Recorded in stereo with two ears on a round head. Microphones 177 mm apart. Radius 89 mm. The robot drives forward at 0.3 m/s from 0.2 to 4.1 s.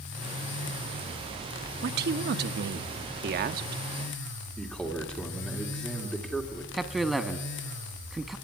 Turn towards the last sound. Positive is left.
turn(degrees=0)  # may be behind; listen again after turning